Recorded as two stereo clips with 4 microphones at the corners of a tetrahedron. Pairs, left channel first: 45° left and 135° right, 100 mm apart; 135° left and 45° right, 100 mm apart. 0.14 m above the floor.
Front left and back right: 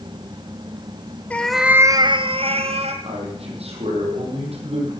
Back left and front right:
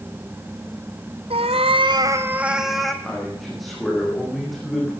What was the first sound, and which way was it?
A cat meowing, 30° right.